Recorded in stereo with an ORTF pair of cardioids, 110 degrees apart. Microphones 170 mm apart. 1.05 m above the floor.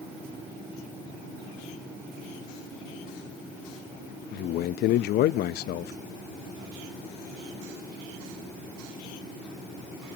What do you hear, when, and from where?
4.3 s a man speaking: 65° left, 0.7 m